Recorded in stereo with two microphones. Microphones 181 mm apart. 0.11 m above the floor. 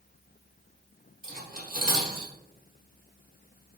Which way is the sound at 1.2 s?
50° right (ahead or behind).